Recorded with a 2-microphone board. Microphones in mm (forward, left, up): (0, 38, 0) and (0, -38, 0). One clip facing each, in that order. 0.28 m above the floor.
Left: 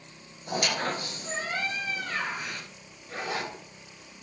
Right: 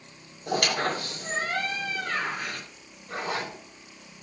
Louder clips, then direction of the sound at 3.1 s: Right 2 dB; 50° right (ahead or behind).